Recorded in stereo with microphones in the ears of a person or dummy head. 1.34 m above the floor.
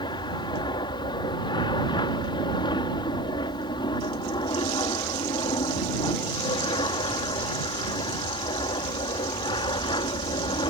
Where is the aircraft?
25° left (ahead or behind).